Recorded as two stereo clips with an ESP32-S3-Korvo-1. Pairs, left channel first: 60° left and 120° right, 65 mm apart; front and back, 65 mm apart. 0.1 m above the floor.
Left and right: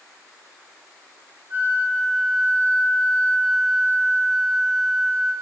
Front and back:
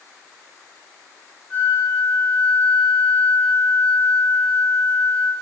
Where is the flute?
65° right, 7 m.